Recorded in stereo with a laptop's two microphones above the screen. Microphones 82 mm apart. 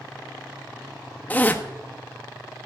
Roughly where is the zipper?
Left.